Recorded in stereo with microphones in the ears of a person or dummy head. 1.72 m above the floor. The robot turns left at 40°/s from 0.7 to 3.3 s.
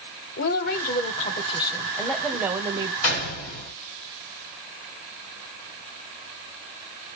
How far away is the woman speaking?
About 0.8 m.